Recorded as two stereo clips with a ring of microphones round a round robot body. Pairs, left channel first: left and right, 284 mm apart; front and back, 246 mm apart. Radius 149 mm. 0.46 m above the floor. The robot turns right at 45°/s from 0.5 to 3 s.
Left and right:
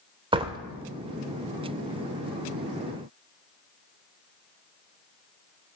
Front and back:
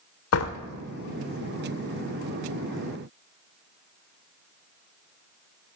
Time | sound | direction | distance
0.3 | a door slam | 20° right | 1.0 m